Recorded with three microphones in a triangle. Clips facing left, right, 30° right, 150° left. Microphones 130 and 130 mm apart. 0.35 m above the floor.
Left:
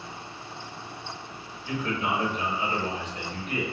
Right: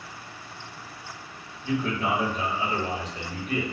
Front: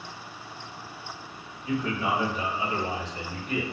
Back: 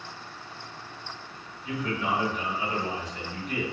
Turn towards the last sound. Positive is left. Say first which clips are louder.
# right 3 dB, front 2 dB
turn(degrees=-70)